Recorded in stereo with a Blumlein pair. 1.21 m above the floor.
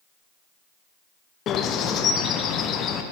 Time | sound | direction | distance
1.5 | a bird | 30° left | 0.6 m